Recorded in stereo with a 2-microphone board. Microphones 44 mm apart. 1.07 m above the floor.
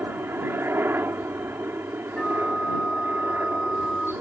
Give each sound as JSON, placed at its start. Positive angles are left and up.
{"t": 0.0, "sound": "a helicopter", "side_deg": -60}
{"t": 2.2, "sound": "a flute", "side_deg": 20}